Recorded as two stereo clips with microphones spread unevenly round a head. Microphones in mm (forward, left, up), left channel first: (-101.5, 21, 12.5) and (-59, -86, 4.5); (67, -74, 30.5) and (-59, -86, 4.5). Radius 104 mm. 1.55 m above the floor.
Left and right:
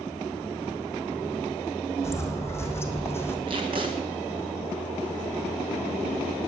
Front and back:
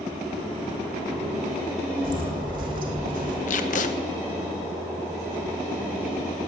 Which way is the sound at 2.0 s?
175° left.